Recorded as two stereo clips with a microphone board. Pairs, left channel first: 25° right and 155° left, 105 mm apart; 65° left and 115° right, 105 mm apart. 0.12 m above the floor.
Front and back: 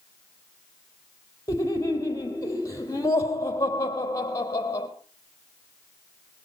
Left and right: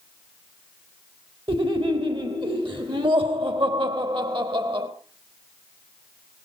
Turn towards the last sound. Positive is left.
turn(degrees=-80)